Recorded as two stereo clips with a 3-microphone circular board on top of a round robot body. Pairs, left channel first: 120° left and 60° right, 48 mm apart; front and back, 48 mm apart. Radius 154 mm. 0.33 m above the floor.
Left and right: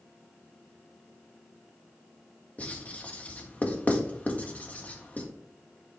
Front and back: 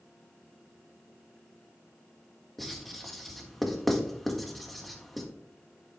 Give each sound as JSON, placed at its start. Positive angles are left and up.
{"t": 2.6, "sound": "writing", "azimuth_deg": 85, "distance_m": 1.7}